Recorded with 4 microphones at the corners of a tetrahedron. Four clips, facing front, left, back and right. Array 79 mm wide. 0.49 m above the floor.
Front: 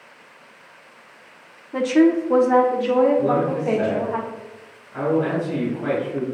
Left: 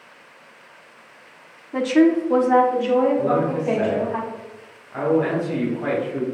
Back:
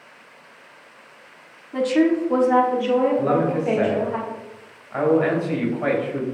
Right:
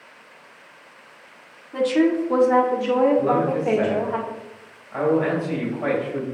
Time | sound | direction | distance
1.7 | a woman speaking | 50° left | 0.7 m
3.2 | a man speaking | 150° right | 2.5 m